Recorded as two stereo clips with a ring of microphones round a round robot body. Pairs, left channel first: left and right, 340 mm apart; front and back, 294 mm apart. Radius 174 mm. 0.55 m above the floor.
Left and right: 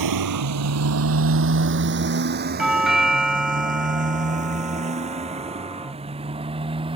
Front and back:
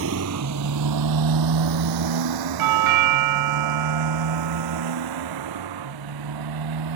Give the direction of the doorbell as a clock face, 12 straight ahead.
6 o'clock.